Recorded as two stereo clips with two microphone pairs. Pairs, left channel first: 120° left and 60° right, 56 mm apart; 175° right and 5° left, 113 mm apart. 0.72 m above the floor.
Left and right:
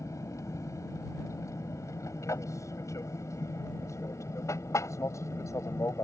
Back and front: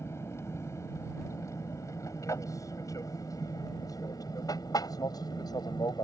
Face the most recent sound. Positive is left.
turn(degrees=135)